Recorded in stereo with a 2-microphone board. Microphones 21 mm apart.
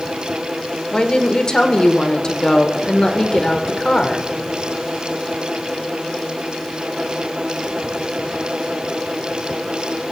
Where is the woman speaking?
40° left (ahead or behind), 1.2 m.